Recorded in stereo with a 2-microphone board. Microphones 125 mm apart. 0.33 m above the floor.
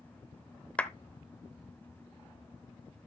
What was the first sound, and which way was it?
A clap, 10° left (ahead or behind).